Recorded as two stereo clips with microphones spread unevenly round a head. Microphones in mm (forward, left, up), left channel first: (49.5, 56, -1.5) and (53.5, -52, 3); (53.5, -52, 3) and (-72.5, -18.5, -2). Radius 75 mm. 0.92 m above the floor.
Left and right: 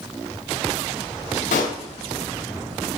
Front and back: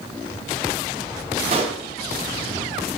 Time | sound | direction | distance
1.5 | a pop | 110° left | 2.0 m